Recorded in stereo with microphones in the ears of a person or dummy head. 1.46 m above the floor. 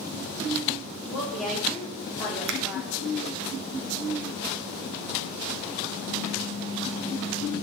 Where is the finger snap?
70° right (ahead or behind), 0.9 m.